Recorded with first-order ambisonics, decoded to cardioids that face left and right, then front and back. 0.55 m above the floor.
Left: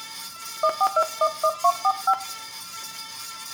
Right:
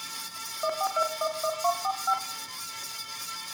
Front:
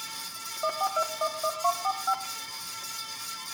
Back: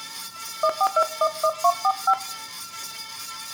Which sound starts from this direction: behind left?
A phone buzzing, at 0.6 s.